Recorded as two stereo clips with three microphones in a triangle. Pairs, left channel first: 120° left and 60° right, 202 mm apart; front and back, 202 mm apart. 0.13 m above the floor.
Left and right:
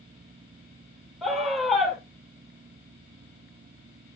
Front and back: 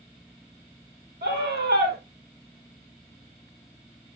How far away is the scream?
About 4 m.